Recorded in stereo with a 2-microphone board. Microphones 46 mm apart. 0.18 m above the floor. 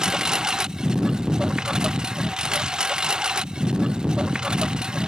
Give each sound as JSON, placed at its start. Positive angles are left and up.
{"t": 0.0, "sound": "a lawn mower", "side_deg": -15}